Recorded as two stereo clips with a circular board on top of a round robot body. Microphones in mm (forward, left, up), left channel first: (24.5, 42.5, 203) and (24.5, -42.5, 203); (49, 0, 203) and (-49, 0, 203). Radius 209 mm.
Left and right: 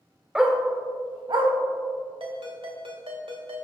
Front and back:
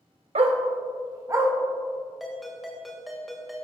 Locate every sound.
0.3 s a dog barking: 170° right, 0.9 m; by 1.5 s 115° right, 1.4 m
2.2 s a ringtone: 90° right, 2.5 m